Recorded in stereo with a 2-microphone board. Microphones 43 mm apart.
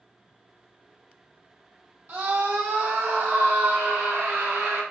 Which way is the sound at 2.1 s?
65° right (ahead or behind).